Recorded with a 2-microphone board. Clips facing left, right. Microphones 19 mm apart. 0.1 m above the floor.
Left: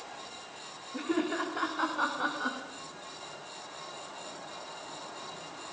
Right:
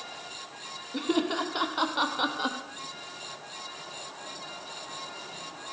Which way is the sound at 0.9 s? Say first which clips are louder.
Right 3 dB; 65° right (ahead or behind).